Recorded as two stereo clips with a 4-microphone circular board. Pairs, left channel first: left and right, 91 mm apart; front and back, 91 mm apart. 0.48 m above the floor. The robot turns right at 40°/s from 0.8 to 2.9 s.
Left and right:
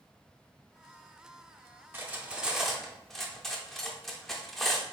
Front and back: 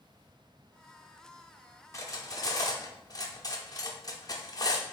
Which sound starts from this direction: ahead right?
Cutlery clinking, at 1.9 s.